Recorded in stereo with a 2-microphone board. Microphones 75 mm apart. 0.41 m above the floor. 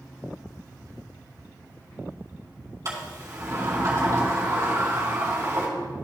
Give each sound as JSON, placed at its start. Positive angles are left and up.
{"t": 2.9, "sound": "a sliding door", "side_deg": -45, "distance_m": 3.5}